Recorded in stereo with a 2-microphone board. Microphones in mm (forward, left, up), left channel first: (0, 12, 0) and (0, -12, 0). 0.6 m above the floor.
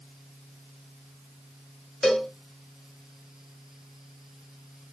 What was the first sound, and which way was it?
A cowbell, 5° left (ahead or behind).